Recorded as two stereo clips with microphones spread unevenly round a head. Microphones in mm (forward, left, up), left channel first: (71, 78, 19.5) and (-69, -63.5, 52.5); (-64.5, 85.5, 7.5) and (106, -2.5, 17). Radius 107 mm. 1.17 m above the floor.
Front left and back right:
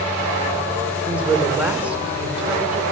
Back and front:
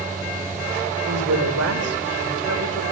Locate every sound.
1.1 s a woman speaking: 50° right, 4.5 m